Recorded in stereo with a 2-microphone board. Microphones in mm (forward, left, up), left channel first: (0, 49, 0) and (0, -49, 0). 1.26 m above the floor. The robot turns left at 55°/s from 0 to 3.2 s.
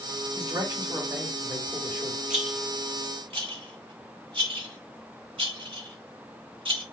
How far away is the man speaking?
About 2.5 m.